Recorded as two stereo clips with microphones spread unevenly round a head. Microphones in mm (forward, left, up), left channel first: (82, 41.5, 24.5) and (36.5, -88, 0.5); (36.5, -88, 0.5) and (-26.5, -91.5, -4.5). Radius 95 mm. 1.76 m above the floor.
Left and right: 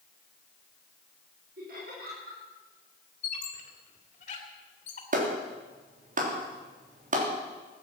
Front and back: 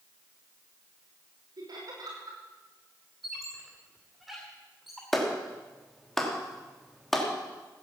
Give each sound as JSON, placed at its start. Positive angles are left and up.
{"t": 1.6, "sound": "laughter", "azimuth_deg": -155, "distance_m": 5.0}
{"t": 3.2, "sound": "a squeak", "azimuth_deg": 90, "distance_m": 2.5}
{"t": 5.1, "sound": "a clap", "azimuth_deg": -85, "distance_m": 3.5}